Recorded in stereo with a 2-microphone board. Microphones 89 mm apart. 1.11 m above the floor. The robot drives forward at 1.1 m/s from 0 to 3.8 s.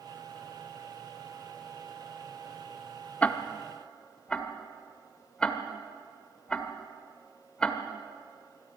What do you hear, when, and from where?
3.2 s ticking: 15° left (ahead or behind), 1.0 m; by 7.8 s 10° left (ahead or behind), 1.6 m